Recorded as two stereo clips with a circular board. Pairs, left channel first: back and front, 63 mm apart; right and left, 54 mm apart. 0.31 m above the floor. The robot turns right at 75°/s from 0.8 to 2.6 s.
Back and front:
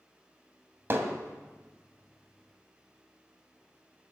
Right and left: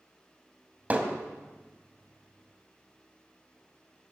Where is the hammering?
35° left, 2.0 m; by 1.1 s 55° left, 2.0 m.